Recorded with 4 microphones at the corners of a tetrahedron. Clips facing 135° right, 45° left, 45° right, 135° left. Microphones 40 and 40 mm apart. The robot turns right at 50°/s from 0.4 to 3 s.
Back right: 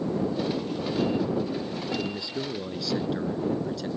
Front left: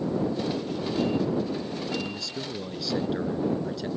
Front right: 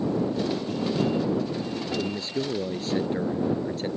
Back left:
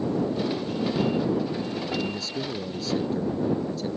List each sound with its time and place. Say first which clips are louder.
2.0 s a man speaking: back right 2 dB, front right 1 dB; 90° right; by 3.9 s 40° right